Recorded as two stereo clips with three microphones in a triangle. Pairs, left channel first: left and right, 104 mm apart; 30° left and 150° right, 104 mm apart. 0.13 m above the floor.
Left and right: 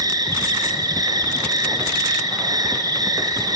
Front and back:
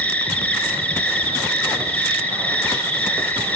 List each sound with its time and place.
0.0 s an insect: 45° right, 4.5 m